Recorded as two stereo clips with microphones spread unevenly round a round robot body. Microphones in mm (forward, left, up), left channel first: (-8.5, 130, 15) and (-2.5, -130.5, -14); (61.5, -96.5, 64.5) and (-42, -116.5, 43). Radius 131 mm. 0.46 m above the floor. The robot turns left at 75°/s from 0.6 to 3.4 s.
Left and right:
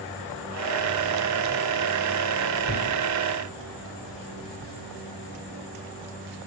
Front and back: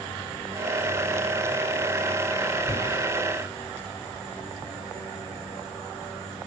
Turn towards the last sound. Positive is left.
turn(degrees=-75)